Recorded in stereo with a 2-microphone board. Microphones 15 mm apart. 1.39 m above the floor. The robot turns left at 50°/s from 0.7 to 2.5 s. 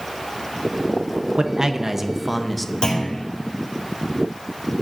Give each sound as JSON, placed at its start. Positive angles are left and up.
{"t": 1.4, "sound": "a man speaking", "azimuth_deg": -125, "distance_m": 0.8}
{"t": 2.8, "sound": "a clunk", "side_deg": 80, "distance_m": 3.5}